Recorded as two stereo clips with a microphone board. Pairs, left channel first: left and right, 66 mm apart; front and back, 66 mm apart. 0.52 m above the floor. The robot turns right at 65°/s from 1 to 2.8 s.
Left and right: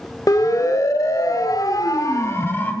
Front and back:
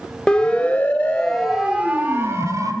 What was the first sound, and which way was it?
A siren, 75° left.